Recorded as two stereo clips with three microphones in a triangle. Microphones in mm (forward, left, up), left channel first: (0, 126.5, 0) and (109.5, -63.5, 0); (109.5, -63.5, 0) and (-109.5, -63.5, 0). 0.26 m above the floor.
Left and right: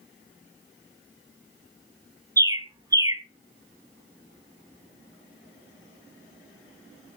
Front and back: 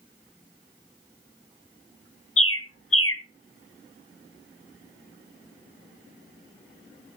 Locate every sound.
2.4 s a bird: 15° left, 1.3 m